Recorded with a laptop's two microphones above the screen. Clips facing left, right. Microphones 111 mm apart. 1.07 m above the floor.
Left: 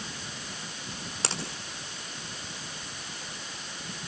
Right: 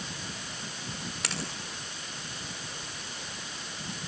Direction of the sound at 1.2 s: 30° left (ahead or behind).